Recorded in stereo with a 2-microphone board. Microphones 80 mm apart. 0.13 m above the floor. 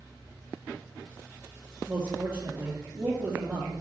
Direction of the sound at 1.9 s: 20° right (ahead or behind).